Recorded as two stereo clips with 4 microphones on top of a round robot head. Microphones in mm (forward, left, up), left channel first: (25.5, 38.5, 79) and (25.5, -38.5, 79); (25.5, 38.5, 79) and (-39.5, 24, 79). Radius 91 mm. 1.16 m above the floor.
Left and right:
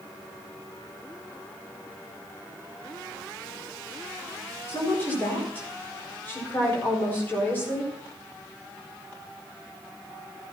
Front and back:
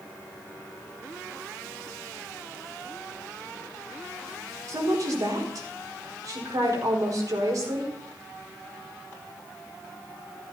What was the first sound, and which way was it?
A woman speaking, 160° left.